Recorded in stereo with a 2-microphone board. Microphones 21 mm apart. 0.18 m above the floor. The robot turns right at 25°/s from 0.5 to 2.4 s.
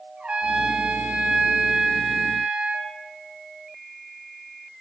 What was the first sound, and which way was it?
A trumpet, 110° right.